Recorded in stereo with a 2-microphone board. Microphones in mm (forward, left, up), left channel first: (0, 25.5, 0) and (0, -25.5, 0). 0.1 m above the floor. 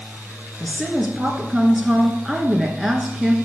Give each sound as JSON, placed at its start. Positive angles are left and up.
{"t": 0.6, "sound": "a woman speaking", "side_deg": 0, "distance_m": 1.2}